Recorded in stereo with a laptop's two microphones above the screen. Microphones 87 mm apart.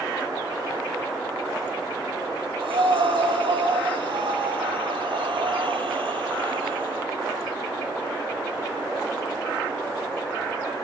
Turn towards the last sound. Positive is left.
turn(degrees=-75)  # may be behind; listen again after turning